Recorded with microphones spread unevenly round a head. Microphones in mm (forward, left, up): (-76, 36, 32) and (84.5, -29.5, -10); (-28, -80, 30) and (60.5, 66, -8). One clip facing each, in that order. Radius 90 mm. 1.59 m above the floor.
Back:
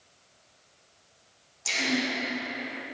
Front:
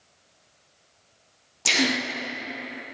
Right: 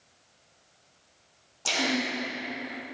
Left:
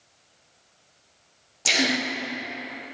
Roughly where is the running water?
I don't hear running water.